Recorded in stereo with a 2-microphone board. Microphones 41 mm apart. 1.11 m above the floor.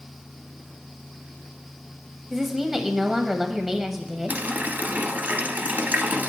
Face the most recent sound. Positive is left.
turn(degrees=-45)  # may be behind; listen again after turning